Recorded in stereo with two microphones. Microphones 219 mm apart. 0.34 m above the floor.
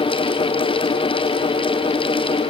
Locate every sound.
Only background noise.